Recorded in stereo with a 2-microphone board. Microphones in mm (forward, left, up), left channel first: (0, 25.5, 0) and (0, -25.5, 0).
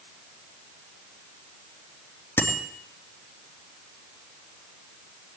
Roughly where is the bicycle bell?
Left.